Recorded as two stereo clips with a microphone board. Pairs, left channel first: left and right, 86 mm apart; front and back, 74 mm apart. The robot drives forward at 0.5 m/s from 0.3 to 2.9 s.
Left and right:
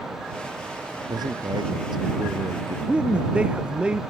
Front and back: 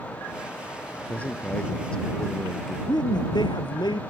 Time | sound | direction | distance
1.1 | a man speaking | 70° right | ?
2.9 | a man speaking | 15° right | ?